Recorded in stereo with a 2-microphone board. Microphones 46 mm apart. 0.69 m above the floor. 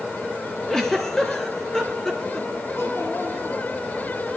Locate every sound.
0.7 s a giggle: 10° left (ahead or behind), 1.9 m
2.8 s a child speaking: 70° left (ahead or behind), 6.5 m